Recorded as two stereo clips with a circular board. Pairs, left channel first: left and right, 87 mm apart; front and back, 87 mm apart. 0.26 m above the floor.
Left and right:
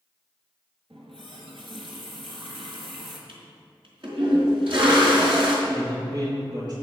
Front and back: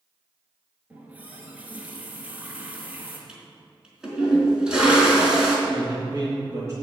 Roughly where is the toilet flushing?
Right.